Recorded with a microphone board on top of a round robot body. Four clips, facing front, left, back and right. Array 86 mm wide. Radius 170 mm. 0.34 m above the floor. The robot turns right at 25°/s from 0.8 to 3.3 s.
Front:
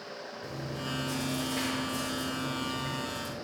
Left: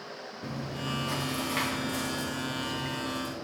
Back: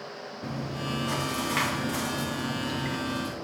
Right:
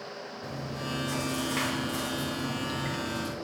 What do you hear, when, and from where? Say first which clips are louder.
0.4 s chewing: left 1 dB, back 5 dB; 150° left, 1.3 m; by 3.4 s 145° right, 1.3 m